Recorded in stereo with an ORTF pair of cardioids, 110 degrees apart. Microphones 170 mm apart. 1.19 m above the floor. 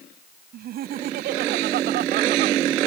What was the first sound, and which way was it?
Laughter, 65° right.